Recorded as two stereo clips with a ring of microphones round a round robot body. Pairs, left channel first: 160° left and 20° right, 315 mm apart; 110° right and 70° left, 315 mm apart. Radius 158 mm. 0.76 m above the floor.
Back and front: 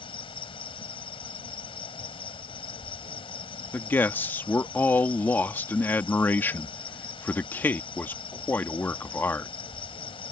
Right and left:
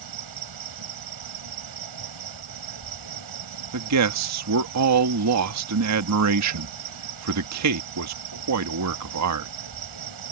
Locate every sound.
0.0 s an insect: 85° left
3.7 s a man speaking: 75° left